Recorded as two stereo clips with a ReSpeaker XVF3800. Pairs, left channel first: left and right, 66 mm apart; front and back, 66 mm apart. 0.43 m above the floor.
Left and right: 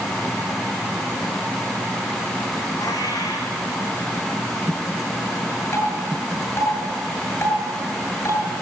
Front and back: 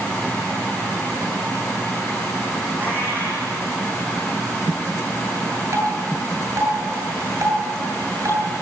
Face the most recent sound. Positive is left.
turn(degrees=135)